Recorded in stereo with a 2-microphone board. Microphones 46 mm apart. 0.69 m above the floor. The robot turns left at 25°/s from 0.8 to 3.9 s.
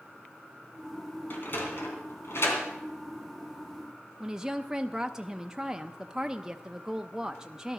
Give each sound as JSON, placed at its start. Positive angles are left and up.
{"t": 1.3, "sound": "a sliding door", "side_deg": 50, "distance_m": 3.0}
{"t": 4.2, "sound": "a woman speaking", "side_deg": -15, "distance_m": 0.5}